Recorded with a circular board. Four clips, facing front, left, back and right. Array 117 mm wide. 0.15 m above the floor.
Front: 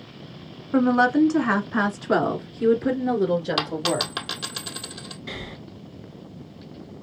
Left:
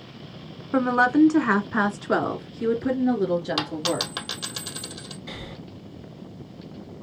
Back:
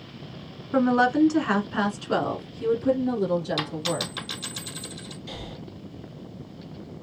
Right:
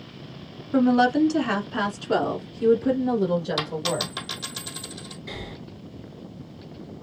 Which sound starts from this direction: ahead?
Breathing, at 5.3 s.